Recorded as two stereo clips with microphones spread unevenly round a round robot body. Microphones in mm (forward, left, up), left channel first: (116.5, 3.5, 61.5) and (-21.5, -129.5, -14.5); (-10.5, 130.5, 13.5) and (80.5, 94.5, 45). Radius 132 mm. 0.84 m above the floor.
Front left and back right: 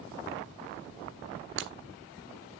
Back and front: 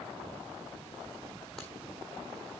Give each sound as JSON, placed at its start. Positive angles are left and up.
{"t": 1.6, "sound": "breaking glass", "azimuth_deg": -110, "distance_m": 1.2}